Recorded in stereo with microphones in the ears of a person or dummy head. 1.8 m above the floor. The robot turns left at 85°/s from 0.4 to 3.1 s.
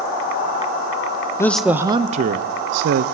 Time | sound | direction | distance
1.4 | a man speaking | 20° left | 0.7 m